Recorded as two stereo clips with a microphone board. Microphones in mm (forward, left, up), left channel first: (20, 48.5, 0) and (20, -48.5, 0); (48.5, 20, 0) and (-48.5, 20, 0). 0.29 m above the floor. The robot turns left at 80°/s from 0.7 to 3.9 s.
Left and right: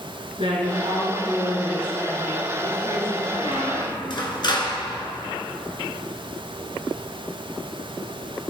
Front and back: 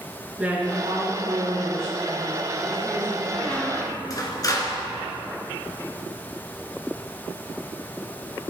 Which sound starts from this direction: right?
A woman speaking, at 0.4 s.